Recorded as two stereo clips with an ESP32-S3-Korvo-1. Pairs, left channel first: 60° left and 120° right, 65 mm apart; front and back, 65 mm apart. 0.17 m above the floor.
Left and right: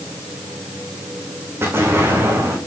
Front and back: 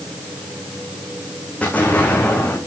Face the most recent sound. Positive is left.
turn(degrees=-70)